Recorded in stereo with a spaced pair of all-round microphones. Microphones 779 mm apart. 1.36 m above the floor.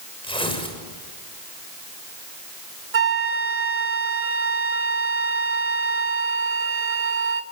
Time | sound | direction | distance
0.2 | tearing paper | 5° left (ahead or behind) | 6.5 m
2.9 | a flute | 45° right (ahead or behind) | 1.1 m